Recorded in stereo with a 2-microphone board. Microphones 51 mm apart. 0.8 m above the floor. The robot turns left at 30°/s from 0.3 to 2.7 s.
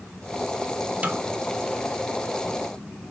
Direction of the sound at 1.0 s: 30° right (ahead or behind).